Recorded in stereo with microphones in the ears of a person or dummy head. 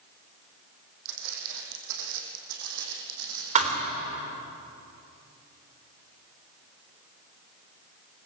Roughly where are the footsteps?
Right.